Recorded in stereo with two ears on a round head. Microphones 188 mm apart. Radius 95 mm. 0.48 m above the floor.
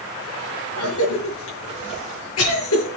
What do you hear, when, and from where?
0.8 s a cough: 75° left (ahead or behind), 7.5 m